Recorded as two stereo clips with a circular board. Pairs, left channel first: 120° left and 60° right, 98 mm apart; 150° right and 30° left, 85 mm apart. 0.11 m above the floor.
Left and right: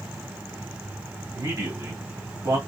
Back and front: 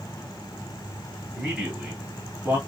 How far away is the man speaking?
About 1.5 m.